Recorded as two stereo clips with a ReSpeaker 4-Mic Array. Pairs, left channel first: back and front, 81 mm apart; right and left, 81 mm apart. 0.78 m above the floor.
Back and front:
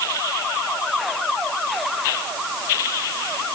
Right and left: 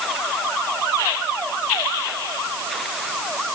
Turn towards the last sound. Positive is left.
No sound to turn to.